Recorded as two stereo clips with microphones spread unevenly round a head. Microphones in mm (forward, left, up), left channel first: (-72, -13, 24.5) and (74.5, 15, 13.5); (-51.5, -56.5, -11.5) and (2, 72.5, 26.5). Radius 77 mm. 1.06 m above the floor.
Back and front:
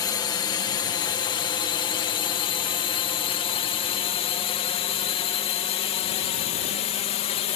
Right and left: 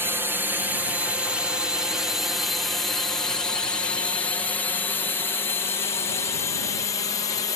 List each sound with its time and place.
0.0 s a drone: 155° left; by 7.6 s 135° right